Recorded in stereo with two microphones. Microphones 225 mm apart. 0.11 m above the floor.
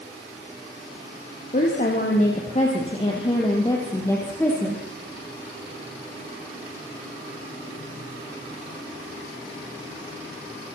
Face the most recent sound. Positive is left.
turn(degrees=5)  # may be behind; listen again after turning